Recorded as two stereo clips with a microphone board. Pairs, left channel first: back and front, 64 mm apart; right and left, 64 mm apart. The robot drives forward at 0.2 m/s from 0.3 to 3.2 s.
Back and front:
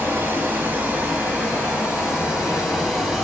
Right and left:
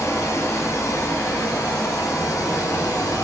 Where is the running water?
55° right, 1.2 m; by 3.2 s 90° right, 1.0 m.